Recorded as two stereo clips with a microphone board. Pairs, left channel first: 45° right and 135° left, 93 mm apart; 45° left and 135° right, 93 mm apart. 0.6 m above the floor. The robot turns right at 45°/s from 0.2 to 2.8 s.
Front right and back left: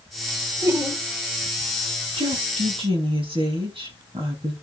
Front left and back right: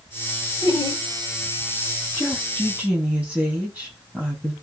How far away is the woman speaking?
About 5 m.